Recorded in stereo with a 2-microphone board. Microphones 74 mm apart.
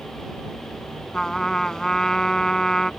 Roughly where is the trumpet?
Centre.